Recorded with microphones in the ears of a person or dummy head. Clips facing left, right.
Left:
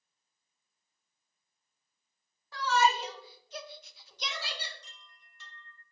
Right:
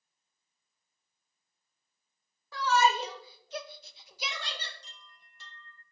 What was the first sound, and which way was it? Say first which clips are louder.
A shout: right 1 dB; 70° right (ahead or behind).